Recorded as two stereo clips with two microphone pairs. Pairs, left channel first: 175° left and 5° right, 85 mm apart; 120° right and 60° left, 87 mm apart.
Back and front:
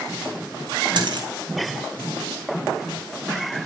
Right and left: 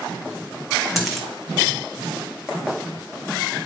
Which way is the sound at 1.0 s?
30° right.